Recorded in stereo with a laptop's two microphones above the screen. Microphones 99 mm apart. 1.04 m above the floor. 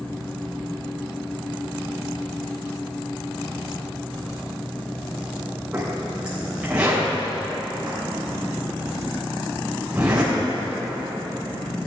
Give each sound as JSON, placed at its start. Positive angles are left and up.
{"t": 0.0, "sound": "a fan", "side_deg": 15, "distance_m": 1.2}
{"t": 5.7, "sound": "a zipper", "side_deg": -10, "distance_m": 3.0}